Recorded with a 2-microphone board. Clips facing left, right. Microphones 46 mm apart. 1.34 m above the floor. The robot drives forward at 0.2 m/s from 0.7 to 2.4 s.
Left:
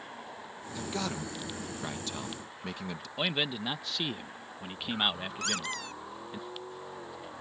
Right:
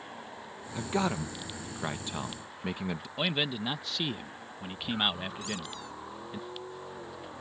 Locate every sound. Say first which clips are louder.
0.8 s a man speaking: right 5 dB; 25° right (ahead or behind); by 3.1 s 20° right (ahead or behind)
3.2 s a man speaking: even; centre (ahead or behind)
5.4 s a squeak: left 4 dB; 65° left (ahead or behind)